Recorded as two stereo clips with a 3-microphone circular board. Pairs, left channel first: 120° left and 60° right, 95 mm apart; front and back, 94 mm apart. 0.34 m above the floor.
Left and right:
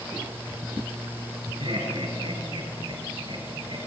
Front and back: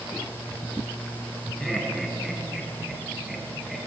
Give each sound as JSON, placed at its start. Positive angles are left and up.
{"t": 1.6, "sound": "laughter", "azimuth_deg": -90, "distance_m": 4.5}